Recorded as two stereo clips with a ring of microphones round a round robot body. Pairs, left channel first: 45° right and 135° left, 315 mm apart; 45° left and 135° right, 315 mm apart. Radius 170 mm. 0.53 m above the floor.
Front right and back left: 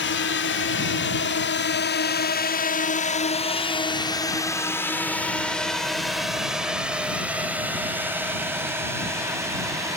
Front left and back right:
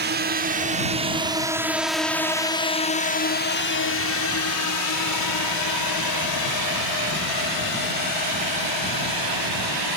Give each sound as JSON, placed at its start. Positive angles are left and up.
{"t": 0.0, "sound": "a drone", "azimuth_deg": -85}